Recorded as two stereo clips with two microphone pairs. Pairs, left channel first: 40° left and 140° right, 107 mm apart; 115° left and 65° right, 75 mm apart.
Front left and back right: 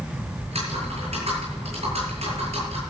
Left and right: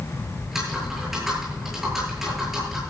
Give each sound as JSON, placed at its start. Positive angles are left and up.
{"t": 0.4, "sound": "typing on a keyboard", "azimuth_deg": -150, "distance_m": 9.5}